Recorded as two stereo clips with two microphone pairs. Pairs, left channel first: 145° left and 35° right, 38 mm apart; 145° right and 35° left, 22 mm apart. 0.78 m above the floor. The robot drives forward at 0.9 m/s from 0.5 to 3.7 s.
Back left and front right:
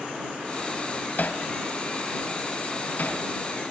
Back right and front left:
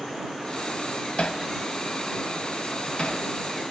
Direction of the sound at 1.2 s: Straight behind.